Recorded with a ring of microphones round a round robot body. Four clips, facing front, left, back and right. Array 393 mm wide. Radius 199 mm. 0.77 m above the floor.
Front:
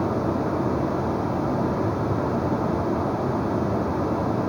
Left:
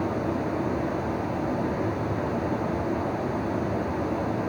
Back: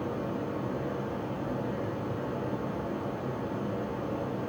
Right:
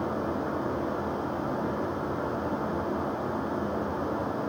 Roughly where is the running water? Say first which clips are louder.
Left 3 dB, front 9 dB; ahead.